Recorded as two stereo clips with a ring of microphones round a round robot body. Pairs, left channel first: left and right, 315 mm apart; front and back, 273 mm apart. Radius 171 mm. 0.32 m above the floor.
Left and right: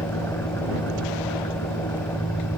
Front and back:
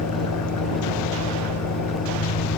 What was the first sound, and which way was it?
An engine running, 5° left.